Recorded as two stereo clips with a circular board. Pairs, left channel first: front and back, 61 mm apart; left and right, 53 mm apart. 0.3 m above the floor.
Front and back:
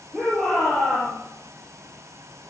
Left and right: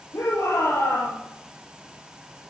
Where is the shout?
90° left, 7 m.